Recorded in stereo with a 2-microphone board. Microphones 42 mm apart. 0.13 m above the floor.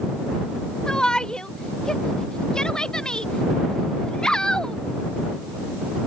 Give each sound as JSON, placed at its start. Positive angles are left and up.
{"t": 0.9, "sound": "a shout", "side_deg": 20}